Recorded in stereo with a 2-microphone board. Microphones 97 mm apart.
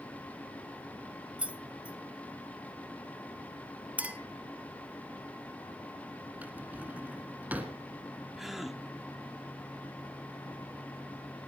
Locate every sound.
1.4 s keys jangling: 10° right (ahead or behind), 0.9 m
4.0 s a clink: 15° right (ahead or behind), 1.3 m
6.4 s a drawer: 15° right (ahead or behind), 1.8 m
8.4 s a gasp: 5° right (ahead or behind), 1.1 m